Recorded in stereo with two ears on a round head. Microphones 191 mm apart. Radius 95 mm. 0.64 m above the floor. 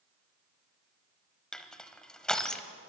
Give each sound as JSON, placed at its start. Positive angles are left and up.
{"t": 1.5, "sound": "crushing", "side_deg": 5, "distance_m": 0.9}